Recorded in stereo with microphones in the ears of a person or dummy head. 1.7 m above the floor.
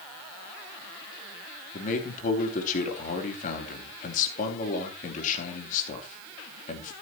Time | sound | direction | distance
1.7 | a man speaking | 45° left (ahead or behind) | 4 m